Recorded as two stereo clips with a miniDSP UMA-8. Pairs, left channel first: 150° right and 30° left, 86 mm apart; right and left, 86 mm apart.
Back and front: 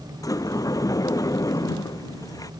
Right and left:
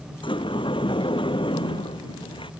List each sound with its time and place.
0.2 s a sliding door: 105° right